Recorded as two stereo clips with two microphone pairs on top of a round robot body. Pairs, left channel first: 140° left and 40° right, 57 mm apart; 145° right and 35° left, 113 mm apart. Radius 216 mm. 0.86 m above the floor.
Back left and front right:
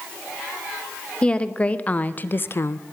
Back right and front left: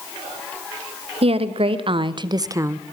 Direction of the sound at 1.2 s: 65° left.